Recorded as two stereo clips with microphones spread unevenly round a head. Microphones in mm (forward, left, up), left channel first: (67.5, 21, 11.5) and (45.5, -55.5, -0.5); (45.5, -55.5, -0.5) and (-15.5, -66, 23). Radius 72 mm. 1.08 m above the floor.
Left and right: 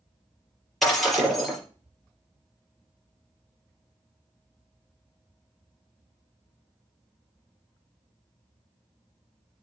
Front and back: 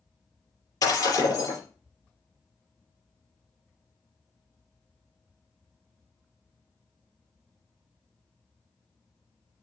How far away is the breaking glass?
About 5.5 m.